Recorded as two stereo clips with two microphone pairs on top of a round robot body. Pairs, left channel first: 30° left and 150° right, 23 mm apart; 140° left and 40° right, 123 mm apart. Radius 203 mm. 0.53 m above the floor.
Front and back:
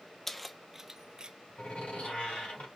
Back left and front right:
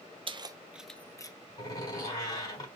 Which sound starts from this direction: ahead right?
Keys jangling, at 0.3 s.